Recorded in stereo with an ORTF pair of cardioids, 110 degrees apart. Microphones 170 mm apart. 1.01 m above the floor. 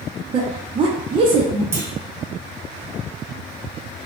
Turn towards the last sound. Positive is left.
turn(degrees=-15)